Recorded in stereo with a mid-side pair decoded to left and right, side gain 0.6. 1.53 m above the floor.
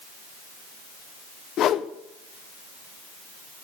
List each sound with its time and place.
1.6 s a whoosh: 55° left, 0.8 m